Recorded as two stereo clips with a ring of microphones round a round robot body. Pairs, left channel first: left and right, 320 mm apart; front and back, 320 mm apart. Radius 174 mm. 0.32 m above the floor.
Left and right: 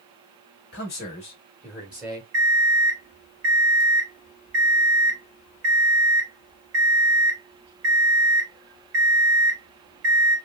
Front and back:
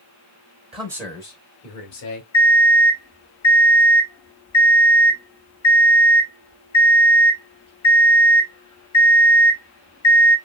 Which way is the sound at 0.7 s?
120° left.